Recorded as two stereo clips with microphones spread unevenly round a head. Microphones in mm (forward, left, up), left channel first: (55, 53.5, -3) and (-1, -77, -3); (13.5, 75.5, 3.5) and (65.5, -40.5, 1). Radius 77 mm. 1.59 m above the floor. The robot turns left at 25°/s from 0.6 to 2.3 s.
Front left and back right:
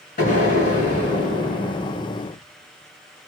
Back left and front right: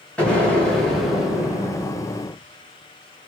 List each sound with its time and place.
0.2 s an explosion: 35° left, 5 m; by 2.4 s 10° right, 5 m